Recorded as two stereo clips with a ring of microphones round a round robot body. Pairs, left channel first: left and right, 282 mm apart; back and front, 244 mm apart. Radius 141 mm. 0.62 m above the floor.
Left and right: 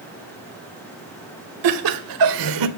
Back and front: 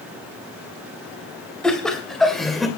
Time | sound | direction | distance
1.6 | laughter | 90° right | 2.5 m